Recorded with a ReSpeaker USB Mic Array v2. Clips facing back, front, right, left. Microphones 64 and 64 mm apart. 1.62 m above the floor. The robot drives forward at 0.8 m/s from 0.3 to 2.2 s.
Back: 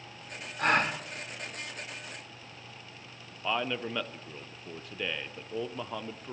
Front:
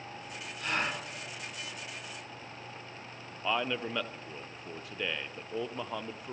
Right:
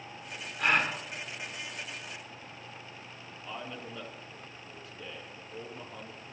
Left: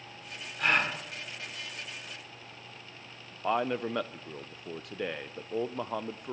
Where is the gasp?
Straight behind, 3 m.